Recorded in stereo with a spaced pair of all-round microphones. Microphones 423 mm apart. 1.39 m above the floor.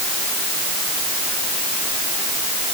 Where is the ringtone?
No ringtone in this recording.